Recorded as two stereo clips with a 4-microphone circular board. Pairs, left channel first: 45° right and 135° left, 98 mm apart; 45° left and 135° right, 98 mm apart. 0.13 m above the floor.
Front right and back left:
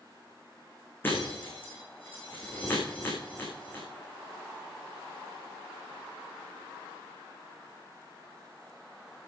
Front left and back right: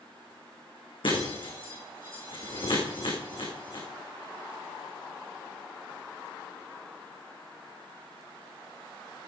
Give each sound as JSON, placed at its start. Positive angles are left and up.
{"t": 1.0, "sound": "breaking glass", "azimuth_deg": 25, "distance_m": 5.5}